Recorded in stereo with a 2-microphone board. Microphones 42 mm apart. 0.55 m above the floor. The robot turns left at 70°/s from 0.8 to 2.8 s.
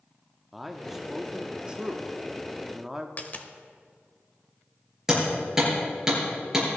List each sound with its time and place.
0.5 s a man speaking: 5° right (ahead or behind), 0.7 m; by 3.1 s 10° right (ahead or behind), 0.7 m
3.2 s a dropped coin: 40° left (ahead or behind), 0.8 m
5.1 s hammering: 10° right (ahead or behind), 5.5 m